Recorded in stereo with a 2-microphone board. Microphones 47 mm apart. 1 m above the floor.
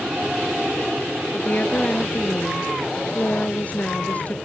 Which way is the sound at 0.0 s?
20° right (ahead or behind).